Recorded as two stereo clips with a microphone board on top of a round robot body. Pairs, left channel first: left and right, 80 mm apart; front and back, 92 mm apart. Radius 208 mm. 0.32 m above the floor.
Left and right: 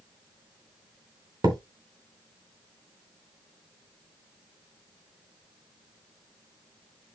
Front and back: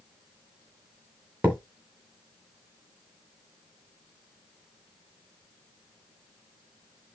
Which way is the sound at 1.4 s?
110° right.